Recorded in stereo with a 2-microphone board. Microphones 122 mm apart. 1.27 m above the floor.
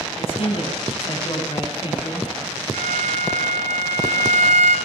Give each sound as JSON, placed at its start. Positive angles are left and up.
{"t": 0.2, "sound": "a man speaking", "side_deg": 50, "distance_m": 10.0}
{"t": 2.7, "sound": "a violin", "side_deg": -80, "distance_m": 5.0}